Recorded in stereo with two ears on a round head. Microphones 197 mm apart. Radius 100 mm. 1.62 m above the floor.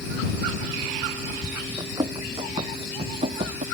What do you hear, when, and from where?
1.8 s running footsteps: 15° right (ahead or behind); by 3.6 s 30° right (ahead or behind)